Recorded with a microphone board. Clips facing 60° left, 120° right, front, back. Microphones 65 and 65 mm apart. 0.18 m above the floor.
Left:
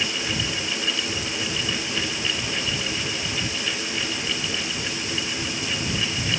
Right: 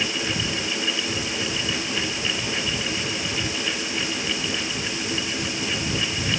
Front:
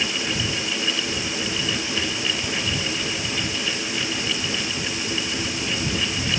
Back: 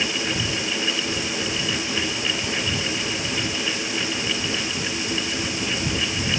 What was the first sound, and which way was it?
Only background noise.